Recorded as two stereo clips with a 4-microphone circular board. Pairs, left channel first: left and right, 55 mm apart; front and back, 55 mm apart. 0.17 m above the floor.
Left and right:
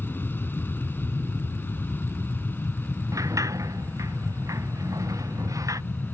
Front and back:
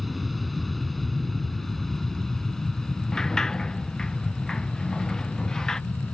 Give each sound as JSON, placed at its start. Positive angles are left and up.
{"t": 0.0, "sound": "an aircraft", "azimuth_deg": 90}
{"t": 3.1, "sound": "a sliding door", "azimuth_deg": -80}